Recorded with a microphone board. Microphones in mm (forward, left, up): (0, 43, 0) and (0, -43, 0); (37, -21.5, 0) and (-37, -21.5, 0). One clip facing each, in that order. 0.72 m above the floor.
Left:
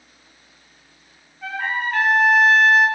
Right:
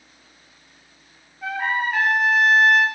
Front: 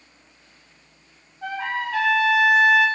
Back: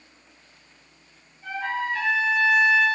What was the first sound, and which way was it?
A trumpet, 5° right.